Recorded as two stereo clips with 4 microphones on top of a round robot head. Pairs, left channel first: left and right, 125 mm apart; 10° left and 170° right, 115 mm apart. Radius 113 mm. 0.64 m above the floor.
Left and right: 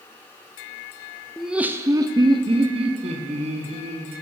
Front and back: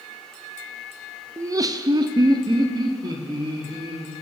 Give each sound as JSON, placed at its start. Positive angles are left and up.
{"t": 1.4, "sound": "laughter", "azimuth_deg": 180, "distance_m": 0.6}